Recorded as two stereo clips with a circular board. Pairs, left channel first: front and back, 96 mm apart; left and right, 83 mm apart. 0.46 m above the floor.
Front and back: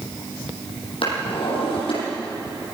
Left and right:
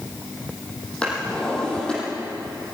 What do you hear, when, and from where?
1.0 s a drawer: 10° left, 7.5 m